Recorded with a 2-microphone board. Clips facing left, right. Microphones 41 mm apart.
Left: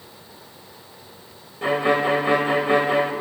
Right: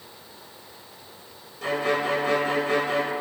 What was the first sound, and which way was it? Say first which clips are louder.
A violin: left 5 dB; 25° left (ahead or behind).